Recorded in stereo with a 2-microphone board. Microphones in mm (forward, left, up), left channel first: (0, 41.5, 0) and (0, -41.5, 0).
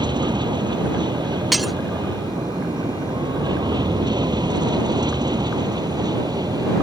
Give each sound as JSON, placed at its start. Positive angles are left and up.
{"t": 0.0, "sound": "an aircraft", "side_deg": -70}
{"t": 1.5, "sound": "breaking glass", "side_deg": 0}